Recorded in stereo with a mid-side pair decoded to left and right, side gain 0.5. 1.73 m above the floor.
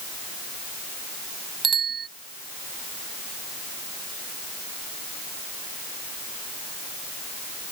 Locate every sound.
1.6 s a bicycle bell: 40° right